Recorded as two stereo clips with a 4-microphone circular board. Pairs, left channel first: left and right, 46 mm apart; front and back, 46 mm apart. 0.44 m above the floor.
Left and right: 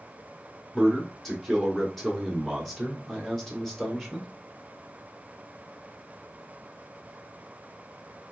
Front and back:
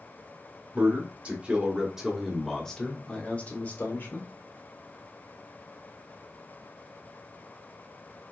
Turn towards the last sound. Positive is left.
turn(degrees=5)